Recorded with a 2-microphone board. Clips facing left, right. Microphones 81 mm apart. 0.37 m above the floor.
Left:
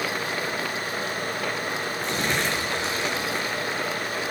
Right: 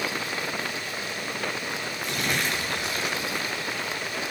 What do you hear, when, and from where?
2.0 s crumpling: 35° left (ahead or behind), 5.5 m